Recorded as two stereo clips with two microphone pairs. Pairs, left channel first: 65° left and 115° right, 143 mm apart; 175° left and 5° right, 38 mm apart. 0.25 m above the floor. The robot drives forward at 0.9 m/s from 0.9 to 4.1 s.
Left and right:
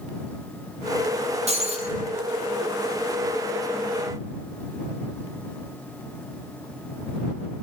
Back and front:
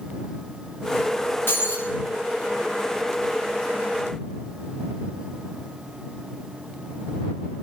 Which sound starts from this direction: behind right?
Breaking glass, at 1.5 s.